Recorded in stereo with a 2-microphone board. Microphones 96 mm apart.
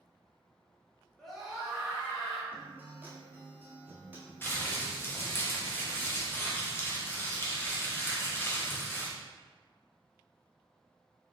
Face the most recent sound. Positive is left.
turn(degrees=25)  # may be behind; listen again after turning